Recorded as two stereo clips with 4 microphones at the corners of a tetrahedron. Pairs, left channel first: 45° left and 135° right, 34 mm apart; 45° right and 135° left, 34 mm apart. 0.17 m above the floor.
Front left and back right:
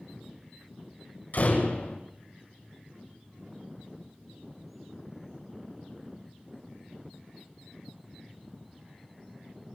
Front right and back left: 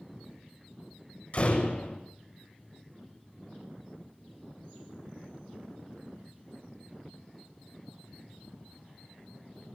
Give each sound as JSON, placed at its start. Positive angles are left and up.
{"t": 1.3, "sound": "a door slam", "azimuth_deg": 0, "distance_m": 6.0}